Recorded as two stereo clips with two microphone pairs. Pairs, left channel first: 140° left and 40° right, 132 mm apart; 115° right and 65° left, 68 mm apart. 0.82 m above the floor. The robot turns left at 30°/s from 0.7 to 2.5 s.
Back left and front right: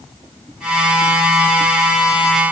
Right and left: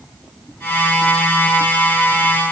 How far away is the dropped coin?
I don't hear a dropped coin.